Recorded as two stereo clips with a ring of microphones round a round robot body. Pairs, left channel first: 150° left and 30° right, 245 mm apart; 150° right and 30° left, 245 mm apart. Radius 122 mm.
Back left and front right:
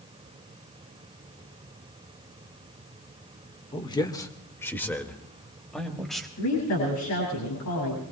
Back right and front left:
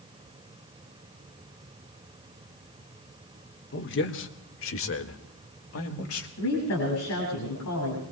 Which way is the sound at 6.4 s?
Straight behind.